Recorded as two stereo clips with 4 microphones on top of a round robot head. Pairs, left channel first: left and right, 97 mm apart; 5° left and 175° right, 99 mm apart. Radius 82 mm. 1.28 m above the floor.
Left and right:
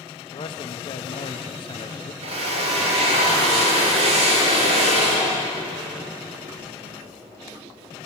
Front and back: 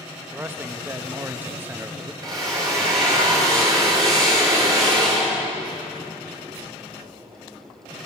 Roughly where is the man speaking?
Behind left.